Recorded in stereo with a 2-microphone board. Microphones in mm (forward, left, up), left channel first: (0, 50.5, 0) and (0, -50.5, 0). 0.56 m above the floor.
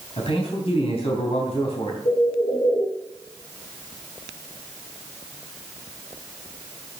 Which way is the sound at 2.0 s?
70° left (ahead or behind).